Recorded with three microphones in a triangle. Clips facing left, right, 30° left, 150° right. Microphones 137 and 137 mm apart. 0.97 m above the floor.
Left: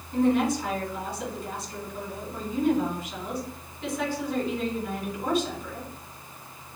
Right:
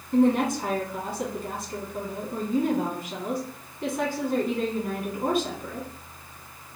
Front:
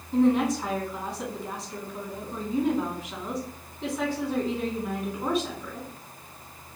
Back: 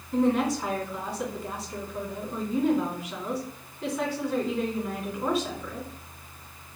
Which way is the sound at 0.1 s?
60° right.